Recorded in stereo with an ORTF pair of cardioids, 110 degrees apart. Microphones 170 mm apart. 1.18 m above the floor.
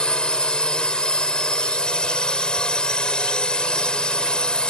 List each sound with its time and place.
0.0 s a drone: 5° left